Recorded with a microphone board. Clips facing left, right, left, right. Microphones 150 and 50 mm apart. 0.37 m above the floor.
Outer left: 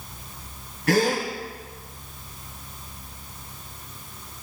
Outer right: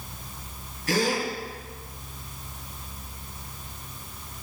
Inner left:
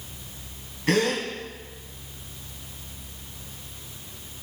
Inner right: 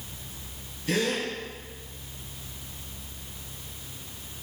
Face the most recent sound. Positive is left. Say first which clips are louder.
# outer left 4 dB, inner left 4 dB
turn(degrees=70)  # may be behind; listen again after turning